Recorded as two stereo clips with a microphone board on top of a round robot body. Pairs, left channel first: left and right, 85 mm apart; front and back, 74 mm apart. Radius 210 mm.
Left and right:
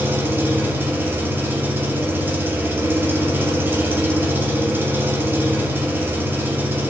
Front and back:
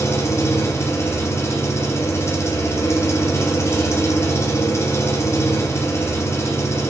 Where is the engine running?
30° right, 1.2 m.